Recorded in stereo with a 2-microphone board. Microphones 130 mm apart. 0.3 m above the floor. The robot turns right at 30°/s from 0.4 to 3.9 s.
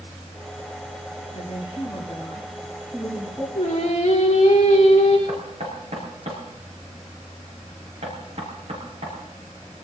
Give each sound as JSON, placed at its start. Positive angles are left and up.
{"t": 1.3, "sound": "a woman speaking", "azimuth_deg": 130, "distance_m": 7.0}
{"t": 3.5, "sound": "singing", "side_deg": 65, "distance_m": 5.0}
{"t": 5.3, "sound": "knocking", "side_deg": -60, "distance_m": 4.5}